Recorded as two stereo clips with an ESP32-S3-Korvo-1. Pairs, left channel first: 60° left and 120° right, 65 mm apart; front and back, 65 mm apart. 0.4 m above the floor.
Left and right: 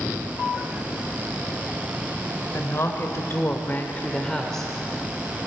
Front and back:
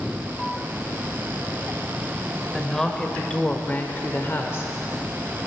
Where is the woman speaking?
80° left, 1.3 m; by 4.7 s 25° right, 1.1 m.